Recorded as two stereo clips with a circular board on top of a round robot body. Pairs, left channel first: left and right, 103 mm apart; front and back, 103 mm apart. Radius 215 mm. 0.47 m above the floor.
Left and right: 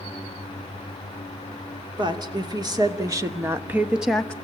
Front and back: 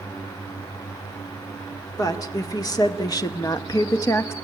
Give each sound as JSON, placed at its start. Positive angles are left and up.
{"t": 2.0, "sound": "a woman speaking", "azimuth_deg": -50, "distance_m": 2.5}